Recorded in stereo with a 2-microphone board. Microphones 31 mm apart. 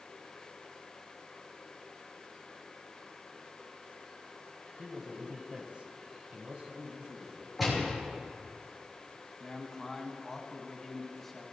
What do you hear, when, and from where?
4.8 s a man speaking: 20° right (ahead or behind), 2 m; by 7.5 s 35° right (ahead or behind), 3.5 m
7.6 s a gunshot: centre (ahead or behind), 5 m
9.4 s a man speaking: 5° left (ahead or behind), 2.5 m